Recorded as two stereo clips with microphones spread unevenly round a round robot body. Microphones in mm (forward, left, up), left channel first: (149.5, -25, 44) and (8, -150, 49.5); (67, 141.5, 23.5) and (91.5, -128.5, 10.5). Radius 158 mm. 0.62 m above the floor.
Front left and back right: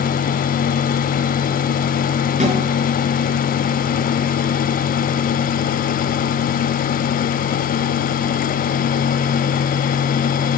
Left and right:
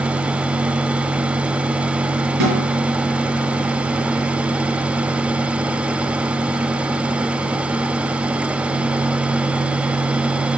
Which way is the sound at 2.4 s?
85° right.